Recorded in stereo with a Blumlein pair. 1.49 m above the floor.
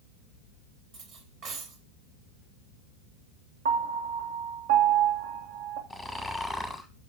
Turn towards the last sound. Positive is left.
turn(degrees=0)